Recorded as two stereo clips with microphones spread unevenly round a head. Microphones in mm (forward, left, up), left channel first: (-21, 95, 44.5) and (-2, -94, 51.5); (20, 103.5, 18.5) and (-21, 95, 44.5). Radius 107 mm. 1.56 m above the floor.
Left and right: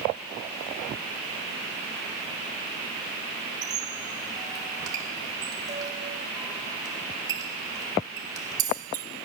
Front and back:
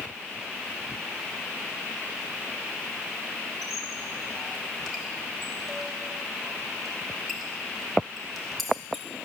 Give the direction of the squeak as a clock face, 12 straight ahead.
5 o'clock.